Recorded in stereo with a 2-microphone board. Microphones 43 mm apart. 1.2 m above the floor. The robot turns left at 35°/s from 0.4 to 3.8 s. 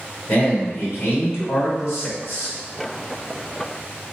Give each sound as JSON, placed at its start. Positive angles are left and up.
{"t": 0.3, "sound": "a man speaking", "azimuth_deg": 140, "distance_m": 1.9}